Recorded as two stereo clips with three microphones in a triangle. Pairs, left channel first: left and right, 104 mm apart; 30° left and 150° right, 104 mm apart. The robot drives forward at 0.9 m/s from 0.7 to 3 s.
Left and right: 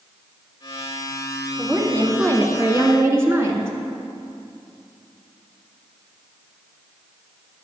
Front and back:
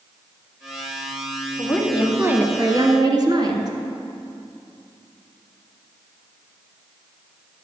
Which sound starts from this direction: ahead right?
A woman speaking, at 1.6 s.